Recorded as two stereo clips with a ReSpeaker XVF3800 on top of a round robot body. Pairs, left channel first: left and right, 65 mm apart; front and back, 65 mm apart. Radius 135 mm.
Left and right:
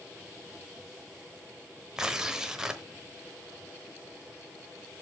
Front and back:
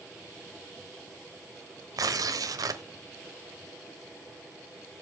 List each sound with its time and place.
2.0 s tearing paper: 170° right, 1.1 m